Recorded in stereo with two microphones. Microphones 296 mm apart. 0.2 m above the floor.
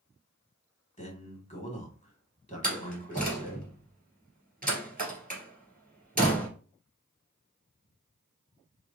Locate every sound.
1.0 s a man speaking: 25° left (ahead or behind), 1.3 m
2.6 s a door slam: 30° right (ahead or behind), 2.5 m